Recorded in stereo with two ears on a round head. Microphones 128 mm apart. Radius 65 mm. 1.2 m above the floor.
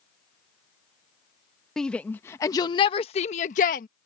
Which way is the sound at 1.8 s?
5° left (ahead or behind).